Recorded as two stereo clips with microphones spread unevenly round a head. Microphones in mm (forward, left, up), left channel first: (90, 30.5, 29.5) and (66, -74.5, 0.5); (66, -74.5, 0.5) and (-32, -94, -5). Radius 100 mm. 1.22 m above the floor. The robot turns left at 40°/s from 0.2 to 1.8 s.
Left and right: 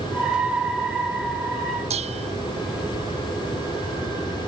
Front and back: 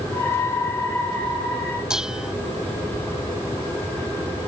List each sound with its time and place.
1.9 s dishes clattering: 85° right